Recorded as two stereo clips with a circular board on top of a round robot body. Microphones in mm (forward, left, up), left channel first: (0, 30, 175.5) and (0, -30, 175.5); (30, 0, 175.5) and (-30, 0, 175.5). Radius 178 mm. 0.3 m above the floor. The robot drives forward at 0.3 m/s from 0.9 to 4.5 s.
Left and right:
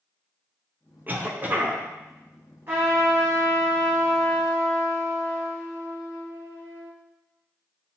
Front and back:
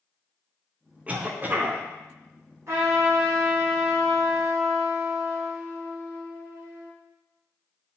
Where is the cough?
130° right, 1.1 m; by 1.8 s 140° right, 1.3 m.